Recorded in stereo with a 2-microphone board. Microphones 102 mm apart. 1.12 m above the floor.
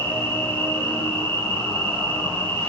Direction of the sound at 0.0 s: 25° left (ahead or behind).